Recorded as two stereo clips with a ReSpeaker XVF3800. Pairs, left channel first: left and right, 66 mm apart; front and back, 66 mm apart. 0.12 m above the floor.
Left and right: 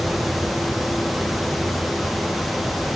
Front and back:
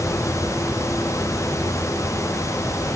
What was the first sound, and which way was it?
Only background noise.